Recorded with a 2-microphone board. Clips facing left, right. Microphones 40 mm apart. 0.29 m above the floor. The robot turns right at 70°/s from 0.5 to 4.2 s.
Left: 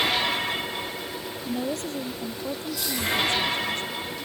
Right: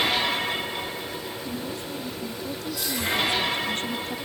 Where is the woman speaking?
70° left; by 4.2 s 100° right.